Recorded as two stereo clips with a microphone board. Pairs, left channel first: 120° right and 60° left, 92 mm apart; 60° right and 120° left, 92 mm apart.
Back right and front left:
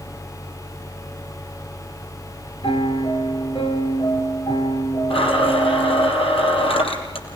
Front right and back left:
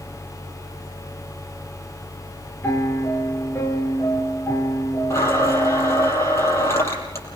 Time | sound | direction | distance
2.6 | a piano | 120° right | 2.5 m
5.1 | a blender | 120° right | 4.5 m